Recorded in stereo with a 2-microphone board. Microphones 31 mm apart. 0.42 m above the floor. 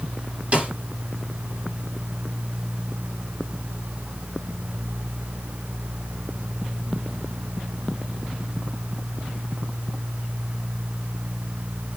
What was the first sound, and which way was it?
A snare drum, 40° right (ahead or behind).